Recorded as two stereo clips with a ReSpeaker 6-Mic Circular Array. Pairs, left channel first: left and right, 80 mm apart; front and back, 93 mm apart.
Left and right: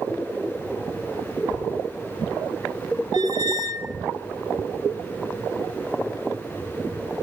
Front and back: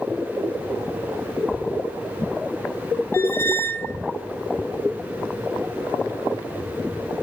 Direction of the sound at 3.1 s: 65° right.